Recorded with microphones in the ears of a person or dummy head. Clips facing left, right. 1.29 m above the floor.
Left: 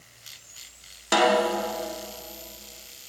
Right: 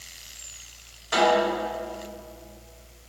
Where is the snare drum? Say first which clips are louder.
Even; 75° left (ahead or behind), 2 m.